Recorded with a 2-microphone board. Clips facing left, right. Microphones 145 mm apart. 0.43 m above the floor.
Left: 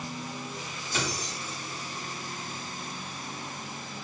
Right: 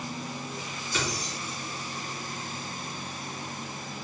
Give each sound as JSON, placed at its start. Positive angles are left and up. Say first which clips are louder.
{"t": 0.9, "sound": "keys jangling", "louder": "even", "side_deg": 35, "distance_m": 1.8}